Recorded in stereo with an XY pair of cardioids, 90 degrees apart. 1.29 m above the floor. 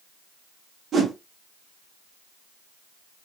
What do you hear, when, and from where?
0.9 s a whoosh: 60° right, 1.3 m